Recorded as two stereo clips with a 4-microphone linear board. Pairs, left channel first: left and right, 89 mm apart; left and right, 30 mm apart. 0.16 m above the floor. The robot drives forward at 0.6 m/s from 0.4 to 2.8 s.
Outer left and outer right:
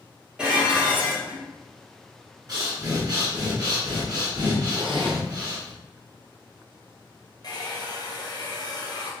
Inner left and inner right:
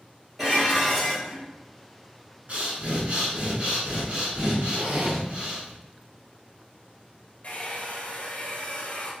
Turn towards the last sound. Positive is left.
turn(degrees=50)  # may be behind; listen again after turning